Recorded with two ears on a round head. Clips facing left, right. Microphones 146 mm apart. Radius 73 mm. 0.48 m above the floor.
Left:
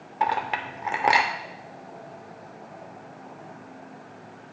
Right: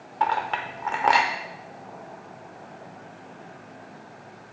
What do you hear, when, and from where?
0.2 s a clink: 15° left (ahead or behind), 0.7 m